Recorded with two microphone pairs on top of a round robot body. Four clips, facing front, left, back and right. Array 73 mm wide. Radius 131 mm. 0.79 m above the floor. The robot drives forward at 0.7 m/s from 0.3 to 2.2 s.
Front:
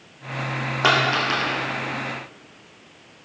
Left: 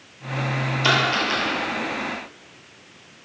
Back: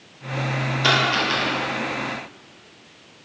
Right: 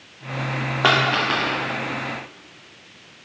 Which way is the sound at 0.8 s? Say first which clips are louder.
Right 3 dB, front 1 dB; 65° right.